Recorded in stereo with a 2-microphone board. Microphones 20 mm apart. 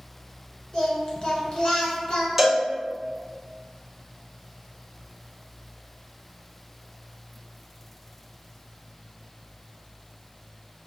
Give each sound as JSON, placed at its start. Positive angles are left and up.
{"t": 0.7, "sound": "singing", "side_deg": 45, "distance_m": 1.1}
{"t": 2.4, "sound": "a cowbell", "side_deg": -15, "distance_m": 1.1}